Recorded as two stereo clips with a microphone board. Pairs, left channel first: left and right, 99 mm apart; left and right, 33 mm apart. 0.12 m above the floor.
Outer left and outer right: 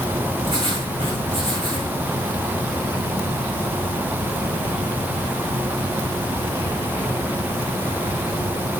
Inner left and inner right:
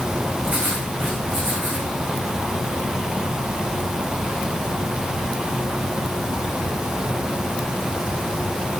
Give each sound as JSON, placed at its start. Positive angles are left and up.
{"t": 0.4, "sound": "writing", "side_deg": -65, "distance_m": 5.5}